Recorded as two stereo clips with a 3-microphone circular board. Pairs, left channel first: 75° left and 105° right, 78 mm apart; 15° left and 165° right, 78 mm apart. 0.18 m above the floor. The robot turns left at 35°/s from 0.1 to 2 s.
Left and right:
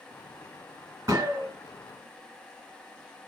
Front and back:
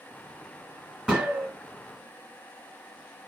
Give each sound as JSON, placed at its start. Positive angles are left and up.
{"t": 1.1, "sound": "a gunshot", "azimuth_deg": -85, "distance_m": 1.2}